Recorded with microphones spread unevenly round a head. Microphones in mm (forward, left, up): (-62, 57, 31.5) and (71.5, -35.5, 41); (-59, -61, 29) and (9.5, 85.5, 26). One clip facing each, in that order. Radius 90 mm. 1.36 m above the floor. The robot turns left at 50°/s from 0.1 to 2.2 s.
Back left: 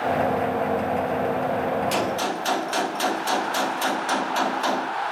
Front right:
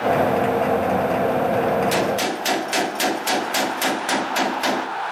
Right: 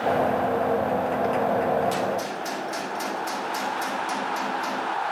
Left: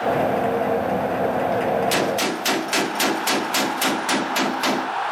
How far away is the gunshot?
About 1.7 m.